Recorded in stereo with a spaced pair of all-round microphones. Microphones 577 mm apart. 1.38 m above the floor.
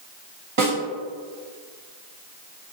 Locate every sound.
0.6 s a snare drum: 45° right (ahead or behind), 1.3 m